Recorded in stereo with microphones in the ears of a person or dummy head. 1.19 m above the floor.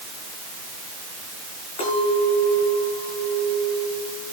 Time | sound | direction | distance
1.8 | a clink | 35° left (ahead or behind) | 9 m